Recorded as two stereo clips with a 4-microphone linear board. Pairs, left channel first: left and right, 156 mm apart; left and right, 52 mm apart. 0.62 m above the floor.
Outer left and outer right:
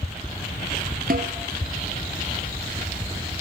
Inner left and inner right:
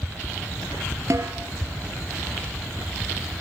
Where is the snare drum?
65° right (ahead or behind), 2.5 m.